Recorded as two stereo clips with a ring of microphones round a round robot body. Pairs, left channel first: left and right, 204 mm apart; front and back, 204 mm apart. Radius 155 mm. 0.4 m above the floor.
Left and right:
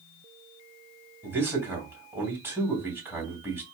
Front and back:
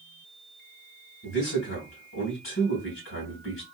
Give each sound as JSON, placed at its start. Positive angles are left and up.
{"t": 1.2, "sound": "a man speaking", "azimuth_deg": -10, "distance_m": 3.0}